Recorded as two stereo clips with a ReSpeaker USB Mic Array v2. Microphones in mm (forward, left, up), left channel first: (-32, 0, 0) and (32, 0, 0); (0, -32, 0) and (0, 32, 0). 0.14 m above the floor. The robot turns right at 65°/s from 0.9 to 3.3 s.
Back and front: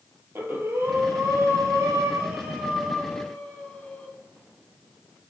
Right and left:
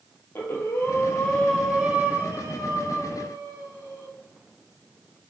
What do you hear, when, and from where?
0.3 s breathing: 45° right, 0.7 m; by 4.1 s 110° left, 0.7 m